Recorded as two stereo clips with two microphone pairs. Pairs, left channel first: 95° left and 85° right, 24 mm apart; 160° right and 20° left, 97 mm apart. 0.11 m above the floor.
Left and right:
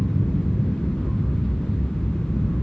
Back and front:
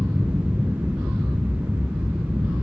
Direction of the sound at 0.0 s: 80° left.